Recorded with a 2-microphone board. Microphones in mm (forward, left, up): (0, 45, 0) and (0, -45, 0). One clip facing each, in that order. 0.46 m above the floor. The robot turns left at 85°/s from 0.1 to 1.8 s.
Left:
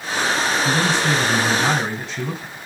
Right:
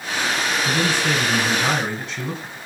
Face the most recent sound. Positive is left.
turn(degrees=5)